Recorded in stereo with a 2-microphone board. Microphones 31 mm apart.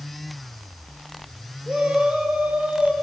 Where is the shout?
40° right (ahead or behind), 2.5 m.